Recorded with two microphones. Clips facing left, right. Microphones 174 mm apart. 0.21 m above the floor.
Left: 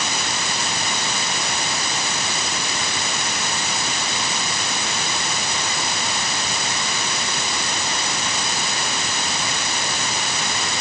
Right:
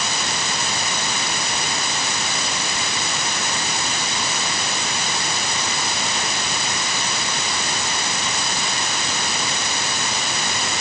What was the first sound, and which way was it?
Only background noise.